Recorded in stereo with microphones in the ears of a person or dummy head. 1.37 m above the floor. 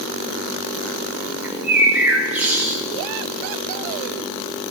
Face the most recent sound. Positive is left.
turn(degrees=0)  # may be behind; listen again after turning